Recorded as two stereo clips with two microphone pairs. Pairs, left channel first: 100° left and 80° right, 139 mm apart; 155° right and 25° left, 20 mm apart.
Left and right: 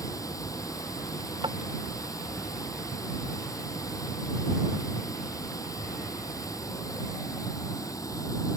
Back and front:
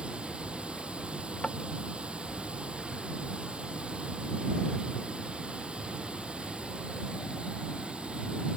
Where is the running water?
40° left.